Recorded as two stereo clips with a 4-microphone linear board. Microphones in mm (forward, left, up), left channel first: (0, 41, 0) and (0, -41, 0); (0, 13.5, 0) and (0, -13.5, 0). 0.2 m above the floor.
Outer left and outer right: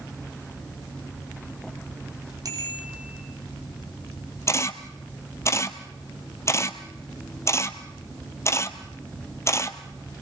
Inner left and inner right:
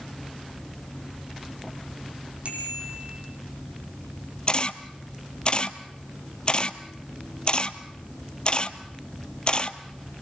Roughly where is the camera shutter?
Left.